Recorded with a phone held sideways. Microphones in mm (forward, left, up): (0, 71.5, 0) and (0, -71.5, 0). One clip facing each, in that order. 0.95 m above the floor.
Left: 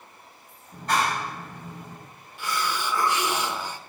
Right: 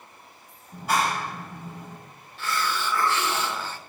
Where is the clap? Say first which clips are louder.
Even; 10° right (ahead or behind), 5.5 m.